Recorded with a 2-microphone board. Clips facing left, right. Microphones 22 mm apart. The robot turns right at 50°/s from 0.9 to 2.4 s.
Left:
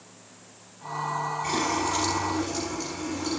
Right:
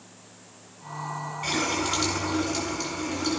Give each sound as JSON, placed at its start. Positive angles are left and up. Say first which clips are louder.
{"t": 1.4, "sound": "a running tap", "louder": "right 2 dB", "azimuth_deg": -80, "distance_m": 7.5}